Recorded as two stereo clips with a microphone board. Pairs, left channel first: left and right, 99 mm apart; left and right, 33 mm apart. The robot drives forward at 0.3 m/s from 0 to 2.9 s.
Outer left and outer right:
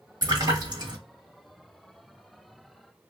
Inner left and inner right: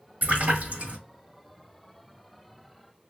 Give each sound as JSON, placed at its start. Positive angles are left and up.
{"t": 0.2, "sound": "a splash", "side_deg": -45, "distance_m": 1.5}